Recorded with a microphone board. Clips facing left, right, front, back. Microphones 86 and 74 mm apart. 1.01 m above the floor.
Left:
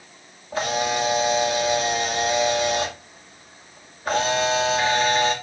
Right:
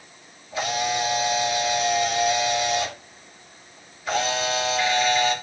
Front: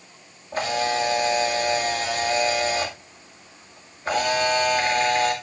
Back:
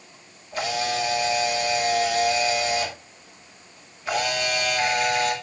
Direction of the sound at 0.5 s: 50° left.